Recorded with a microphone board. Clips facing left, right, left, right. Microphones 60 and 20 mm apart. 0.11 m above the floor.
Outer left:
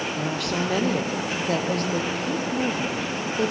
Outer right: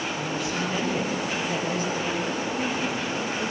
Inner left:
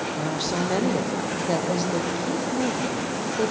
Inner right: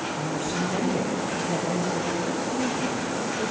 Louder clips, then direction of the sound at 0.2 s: Outer left 2 dB, inner left 3 dB; 65° left (ahead or behind).